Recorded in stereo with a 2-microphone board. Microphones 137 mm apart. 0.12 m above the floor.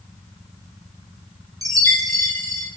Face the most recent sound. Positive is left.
turn(degrees=-25)  # may be behind; listen again after turning